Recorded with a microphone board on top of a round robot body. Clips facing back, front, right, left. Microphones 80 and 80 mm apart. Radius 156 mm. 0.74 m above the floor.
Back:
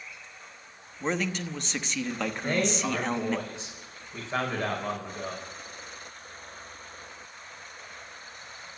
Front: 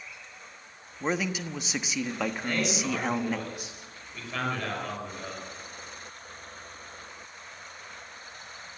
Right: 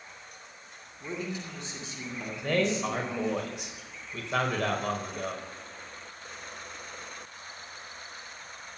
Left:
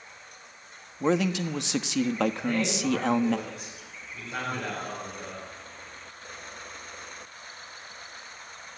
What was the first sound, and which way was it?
A man speaking, 85° left.